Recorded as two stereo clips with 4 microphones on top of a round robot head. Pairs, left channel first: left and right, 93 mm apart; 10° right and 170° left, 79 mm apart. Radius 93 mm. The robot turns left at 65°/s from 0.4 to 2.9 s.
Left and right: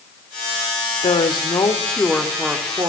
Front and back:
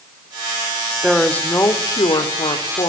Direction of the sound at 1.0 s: 80° left.